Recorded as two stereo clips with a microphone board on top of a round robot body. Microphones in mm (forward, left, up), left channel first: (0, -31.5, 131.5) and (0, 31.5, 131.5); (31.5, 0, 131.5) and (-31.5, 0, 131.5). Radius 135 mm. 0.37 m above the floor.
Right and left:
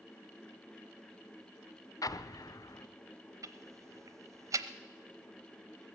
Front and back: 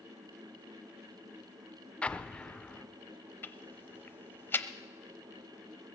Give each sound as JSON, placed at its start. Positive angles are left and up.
{"t": 2.0, "sound": "an explosion", "azimuth_deg": -75, "distance_m": 0.6}
{"t": 3.4, "sound": "ticking", "azimuth_deg": 55, "distance_m": 0.8}